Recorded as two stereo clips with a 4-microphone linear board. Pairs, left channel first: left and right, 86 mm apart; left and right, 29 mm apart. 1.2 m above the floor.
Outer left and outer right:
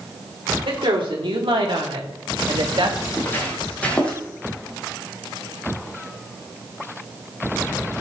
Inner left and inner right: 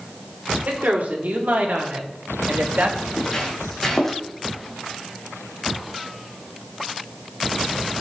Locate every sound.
0.7 s a woman speaking: 85° right, 3.5 m; by 3.0 s 80° right, 2.0 m
3.1 s footsteps: 25° left (ahead or behind), 3 m; by 4.2 s 10° left (ahead or behind), 3 m